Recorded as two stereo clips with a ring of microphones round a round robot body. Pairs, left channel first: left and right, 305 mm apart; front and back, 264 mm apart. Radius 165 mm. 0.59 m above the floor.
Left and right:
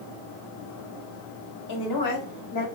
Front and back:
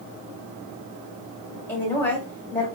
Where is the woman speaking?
80° left, 2 m.